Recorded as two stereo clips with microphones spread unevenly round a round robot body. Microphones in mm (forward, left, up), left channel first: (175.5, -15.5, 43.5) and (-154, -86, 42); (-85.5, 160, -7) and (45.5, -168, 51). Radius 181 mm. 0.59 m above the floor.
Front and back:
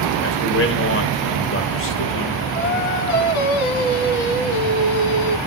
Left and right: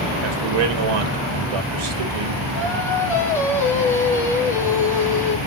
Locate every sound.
0.2 s a man speaking: 40° right, 2.5 m
2.5 s singing: 25° left, 1.4 m